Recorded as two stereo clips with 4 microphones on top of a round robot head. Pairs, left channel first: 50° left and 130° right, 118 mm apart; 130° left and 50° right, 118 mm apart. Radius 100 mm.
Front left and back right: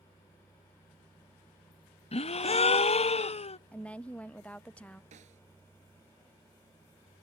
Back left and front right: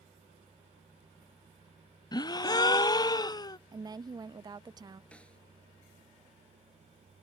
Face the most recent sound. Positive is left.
turn(degrees=-150)